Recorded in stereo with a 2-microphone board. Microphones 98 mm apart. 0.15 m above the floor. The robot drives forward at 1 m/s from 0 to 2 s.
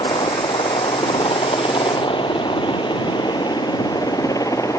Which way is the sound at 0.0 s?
70° left (ahead or behind).